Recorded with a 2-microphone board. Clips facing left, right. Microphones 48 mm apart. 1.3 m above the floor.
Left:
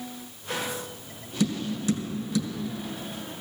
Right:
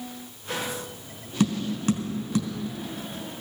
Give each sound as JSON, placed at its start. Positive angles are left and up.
{"t": 1.4, "sound": "tapping", "side_deg": -50, "distance_m": 3.0}